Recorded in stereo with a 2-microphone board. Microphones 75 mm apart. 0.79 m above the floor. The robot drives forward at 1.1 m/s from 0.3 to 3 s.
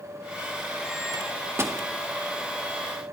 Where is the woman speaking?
I don't hear a woman speaking.